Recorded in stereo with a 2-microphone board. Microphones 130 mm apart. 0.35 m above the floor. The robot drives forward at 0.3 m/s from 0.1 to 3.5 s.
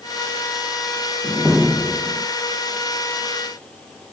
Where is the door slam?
5° right (ahead or behind).